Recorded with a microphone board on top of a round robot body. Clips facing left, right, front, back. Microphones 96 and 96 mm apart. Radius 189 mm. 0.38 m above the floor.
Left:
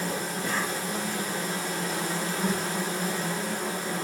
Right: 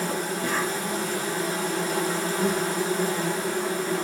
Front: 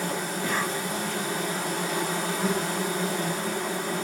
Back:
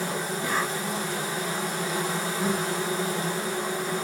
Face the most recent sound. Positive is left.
turn(degrees=-105)